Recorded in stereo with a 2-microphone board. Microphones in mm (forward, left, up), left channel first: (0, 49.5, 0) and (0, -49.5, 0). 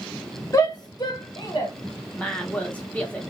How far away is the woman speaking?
About 0.7 m.